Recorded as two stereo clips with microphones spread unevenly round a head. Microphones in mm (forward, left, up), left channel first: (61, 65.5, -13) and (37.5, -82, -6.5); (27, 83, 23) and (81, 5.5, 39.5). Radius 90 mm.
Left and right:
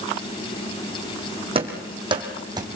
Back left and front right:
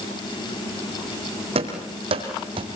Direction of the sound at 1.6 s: 50° right.